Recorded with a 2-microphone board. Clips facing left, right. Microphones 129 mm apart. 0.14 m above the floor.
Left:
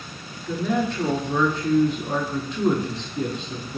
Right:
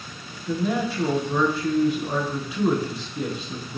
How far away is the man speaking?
About 1.2 m.